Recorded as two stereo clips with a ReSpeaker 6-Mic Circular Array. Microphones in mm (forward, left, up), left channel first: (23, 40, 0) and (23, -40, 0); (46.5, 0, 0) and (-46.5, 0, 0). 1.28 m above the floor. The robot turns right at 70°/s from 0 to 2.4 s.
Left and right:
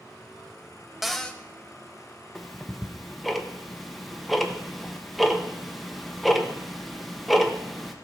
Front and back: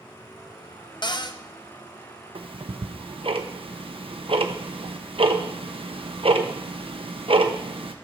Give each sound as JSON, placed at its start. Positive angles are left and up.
{"t": 1.0, "sound": "a cupboard door", "azimuth_deg": -5, "distance_m": 0.6}
{"t": 2.4, "sound": "ticking", "azimuth_deg": 175, "distance_m": 0.8}